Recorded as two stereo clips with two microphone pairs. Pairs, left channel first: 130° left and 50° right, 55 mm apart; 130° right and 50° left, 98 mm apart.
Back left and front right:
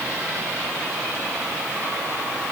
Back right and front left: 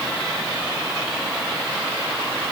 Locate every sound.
Only background noise.